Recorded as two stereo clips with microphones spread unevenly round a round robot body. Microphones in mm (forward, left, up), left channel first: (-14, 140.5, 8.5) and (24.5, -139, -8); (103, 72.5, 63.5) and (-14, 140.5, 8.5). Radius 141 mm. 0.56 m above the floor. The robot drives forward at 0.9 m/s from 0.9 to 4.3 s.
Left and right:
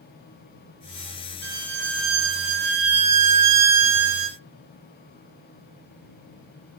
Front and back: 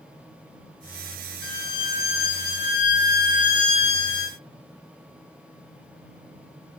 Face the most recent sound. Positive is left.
turn(degrees=-110)